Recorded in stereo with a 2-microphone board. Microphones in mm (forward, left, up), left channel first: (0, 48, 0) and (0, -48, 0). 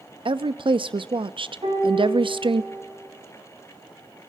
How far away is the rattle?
I don't hear a rattle.